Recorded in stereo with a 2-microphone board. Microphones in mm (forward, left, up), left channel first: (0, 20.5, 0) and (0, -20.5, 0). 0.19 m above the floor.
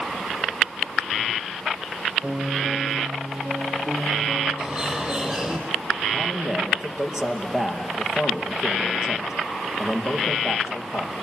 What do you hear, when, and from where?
2.2 s a piano: 60° right (ahead or behind), 5 m
4.6 s a bird: 25° right (ahead or behind), 6 m
6.1 s a man speaking: 15° right (ahead or behind), 4.5 m